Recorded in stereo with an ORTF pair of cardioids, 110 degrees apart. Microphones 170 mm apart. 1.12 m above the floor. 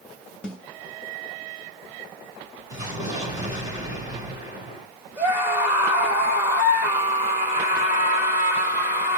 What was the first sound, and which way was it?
A snare drum, 5° left.